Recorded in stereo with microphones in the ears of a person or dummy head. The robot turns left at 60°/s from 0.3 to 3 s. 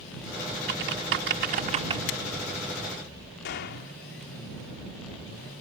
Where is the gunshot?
50° left (ahead or behind).